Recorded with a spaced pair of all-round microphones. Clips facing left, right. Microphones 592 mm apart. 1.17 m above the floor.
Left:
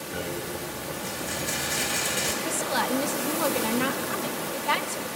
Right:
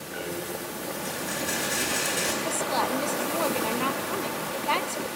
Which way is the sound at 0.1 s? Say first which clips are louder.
Even; 60° left (ahead or behind).